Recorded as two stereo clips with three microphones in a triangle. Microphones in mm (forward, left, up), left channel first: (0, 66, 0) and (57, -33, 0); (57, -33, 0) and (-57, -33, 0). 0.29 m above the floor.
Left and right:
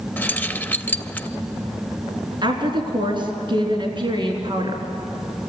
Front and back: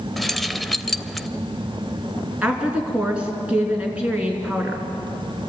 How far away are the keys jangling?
About 0.6 m.